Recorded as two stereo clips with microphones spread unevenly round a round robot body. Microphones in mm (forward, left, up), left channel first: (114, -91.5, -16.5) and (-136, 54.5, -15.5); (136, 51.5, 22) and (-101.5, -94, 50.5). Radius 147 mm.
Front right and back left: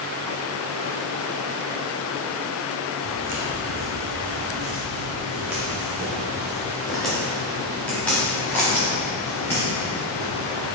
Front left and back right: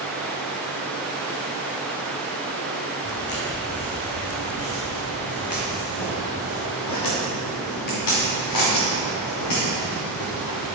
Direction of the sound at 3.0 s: 95° left.